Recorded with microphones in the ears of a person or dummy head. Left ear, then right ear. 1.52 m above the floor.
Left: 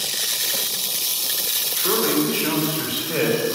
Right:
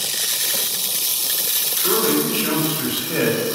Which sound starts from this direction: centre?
A man speaking, at 1.8 s.